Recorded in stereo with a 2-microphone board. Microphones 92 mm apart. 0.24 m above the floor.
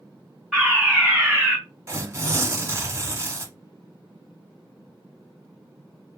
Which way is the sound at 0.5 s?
10° right (ahead or behind).